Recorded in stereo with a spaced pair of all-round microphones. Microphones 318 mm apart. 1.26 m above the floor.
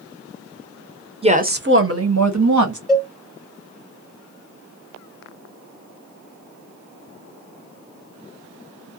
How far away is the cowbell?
About 0.9 m.